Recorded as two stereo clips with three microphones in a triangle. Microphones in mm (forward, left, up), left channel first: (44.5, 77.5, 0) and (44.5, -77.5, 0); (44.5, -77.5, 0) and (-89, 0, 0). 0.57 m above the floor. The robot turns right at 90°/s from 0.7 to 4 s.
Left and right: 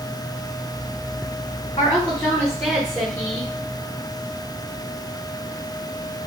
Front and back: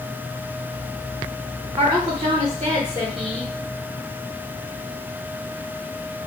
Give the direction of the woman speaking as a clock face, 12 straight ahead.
8 o'clock.